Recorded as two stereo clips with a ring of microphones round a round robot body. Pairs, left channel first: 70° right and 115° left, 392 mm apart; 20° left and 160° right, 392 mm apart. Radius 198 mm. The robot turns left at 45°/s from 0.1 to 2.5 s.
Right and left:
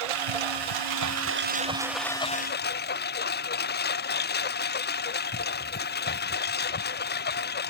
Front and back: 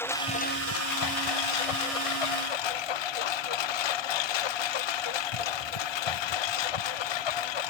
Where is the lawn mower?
105° left; by 7.7 s straight ahead.